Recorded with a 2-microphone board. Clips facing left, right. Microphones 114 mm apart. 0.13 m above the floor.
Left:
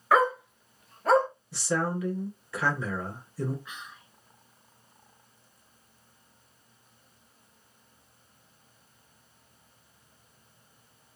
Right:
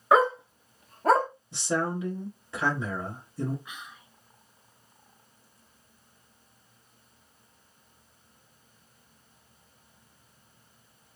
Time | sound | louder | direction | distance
0.1 | a dog barking | right 2 dB | 20° right (ahead or behind) | 0.5 m
1.5 | a man speaking | even | 20° right (ahead or behind) | 1.5 m
3.6 | whispering | even | 15° right (ahead or behind) | 1.9 m